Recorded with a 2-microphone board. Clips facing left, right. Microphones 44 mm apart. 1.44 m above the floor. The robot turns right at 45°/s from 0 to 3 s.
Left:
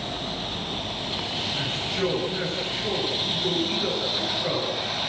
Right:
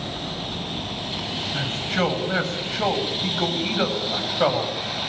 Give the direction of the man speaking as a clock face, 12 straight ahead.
5 o'clock.